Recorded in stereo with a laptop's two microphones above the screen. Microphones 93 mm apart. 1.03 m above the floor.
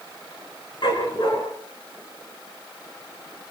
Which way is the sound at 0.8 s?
55° left (ahead or behind).